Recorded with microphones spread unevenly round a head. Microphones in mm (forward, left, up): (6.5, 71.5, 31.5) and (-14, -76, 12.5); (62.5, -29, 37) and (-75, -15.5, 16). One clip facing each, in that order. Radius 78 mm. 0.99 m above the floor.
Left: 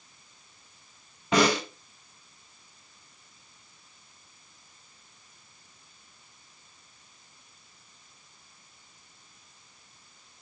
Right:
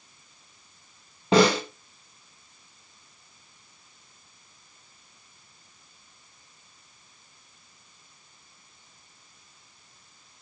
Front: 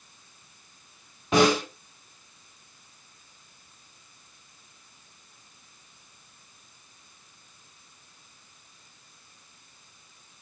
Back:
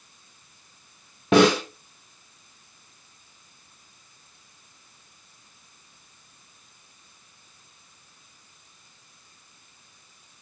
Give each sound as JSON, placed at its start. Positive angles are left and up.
{"t": 1.3, "sound": "a snare drum", "azimuth_deg": -160, "distance_m": 2.5}